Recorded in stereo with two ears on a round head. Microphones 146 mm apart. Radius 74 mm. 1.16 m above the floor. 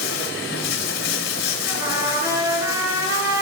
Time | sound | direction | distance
0.0 | running water | 85° left | 3.5 m
1.7 | a trumpet | 15° right (ahead or behind) | 6.5 m